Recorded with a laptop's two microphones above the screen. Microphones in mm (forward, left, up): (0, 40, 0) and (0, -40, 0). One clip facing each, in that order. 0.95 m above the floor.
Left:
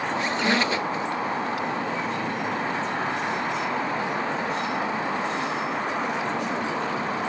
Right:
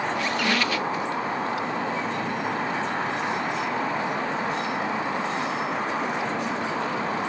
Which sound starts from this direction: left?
A squeak, at 0.1 s.